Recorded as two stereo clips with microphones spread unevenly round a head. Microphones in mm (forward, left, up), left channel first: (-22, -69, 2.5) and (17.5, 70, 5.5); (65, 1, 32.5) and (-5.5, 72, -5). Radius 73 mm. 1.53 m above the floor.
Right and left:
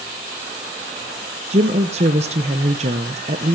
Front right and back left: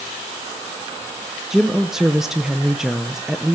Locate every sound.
1.5 s a woman speaking: 35° left, 0.7 m